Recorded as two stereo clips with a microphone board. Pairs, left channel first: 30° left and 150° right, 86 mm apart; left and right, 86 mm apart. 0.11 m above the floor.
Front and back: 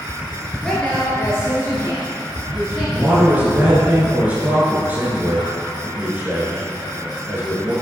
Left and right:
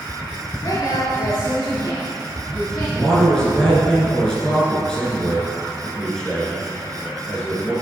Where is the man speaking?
165° left, 1.6 m.